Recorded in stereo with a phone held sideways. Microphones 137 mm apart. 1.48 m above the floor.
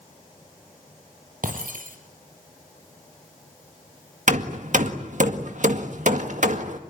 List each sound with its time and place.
1.4 s breaking glass: 65° right (ahead or behind), 4.5 m
4.3 s hammering: 60° right (ahead or behind), 1.8 m